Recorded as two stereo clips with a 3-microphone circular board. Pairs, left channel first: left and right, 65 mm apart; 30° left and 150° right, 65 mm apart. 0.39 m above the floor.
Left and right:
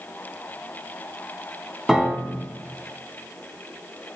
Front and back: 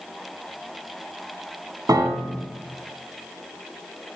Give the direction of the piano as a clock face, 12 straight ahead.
6 o'clock.